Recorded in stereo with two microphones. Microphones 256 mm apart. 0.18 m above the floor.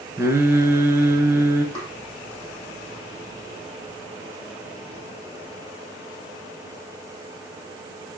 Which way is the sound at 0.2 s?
10° right (ahead or behind).